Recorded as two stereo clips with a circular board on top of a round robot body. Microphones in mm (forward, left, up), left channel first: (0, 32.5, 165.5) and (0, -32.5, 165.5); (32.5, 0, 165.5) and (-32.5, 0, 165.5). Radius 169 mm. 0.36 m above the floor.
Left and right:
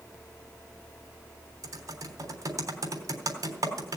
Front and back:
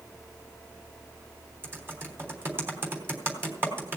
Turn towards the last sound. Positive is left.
turn(degrees=-125)